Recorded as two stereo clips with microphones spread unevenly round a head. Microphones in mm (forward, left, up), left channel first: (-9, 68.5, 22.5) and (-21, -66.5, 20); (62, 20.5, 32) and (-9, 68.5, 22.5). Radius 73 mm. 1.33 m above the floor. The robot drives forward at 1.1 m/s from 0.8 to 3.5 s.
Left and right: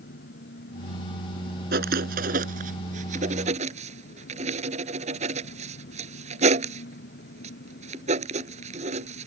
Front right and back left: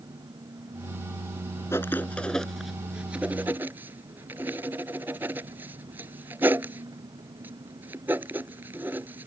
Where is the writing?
105° right; by 9.3 s 135° right.